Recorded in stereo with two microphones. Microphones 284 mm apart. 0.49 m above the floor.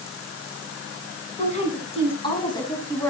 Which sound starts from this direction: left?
A woman speaking, at 1.4 s.